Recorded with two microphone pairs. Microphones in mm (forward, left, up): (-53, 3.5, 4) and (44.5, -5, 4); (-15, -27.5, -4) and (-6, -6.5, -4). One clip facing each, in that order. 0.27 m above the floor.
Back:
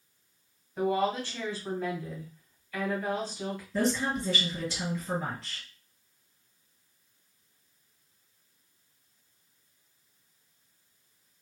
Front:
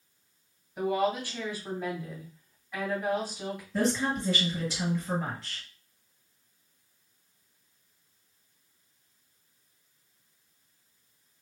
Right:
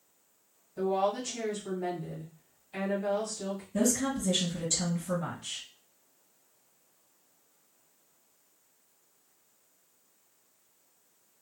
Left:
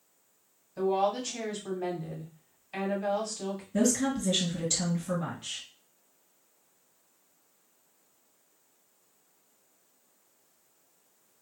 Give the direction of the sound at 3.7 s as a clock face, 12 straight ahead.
9 o'clock.